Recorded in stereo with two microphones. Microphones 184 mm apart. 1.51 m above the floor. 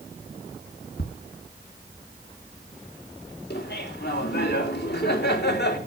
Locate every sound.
1.0 s ticking: 60° left (ahead or behind), 1.5 m
3.5 s laughter: 70° left (ahead or behind), 3 m